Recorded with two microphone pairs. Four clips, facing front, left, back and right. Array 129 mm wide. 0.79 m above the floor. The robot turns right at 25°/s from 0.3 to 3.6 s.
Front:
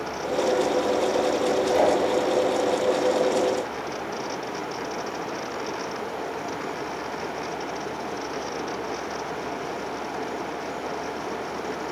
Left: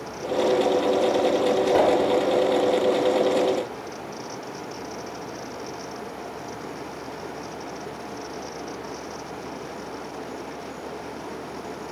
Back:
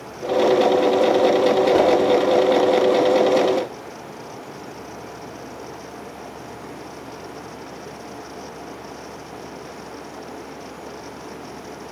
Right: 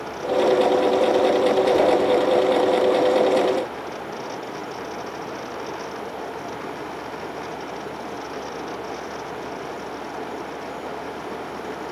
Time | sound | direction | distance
1.7 | a whoosh | 135° left | 1.5 m